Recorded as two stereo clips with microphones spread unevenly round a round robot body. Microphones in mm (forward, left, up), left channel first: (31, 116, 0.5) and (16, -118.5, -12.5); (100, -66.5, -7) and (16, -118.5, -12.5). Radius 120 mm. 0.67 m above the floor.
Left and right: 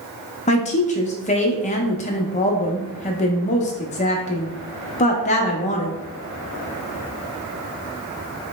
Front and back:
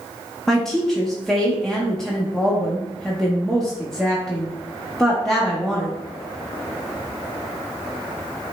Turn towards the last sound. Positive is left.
turn(degrees=120)